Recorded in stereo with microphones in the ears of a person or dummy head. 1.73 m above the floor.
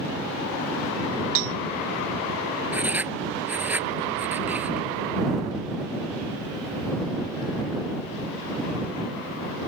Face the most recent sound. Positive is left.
turn(degrees=-5)  # may be behind; listen again after turning